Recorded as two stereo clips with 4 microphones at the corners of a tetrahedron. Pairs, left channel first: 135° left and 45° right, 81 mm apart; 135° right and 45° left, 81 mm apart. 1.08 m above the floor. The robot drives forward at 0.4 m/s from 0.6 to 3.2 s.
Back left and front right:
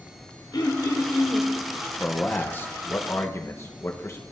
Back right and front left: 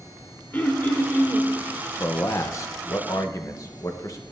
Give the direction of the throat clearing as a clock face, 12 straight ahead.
7 o'clock.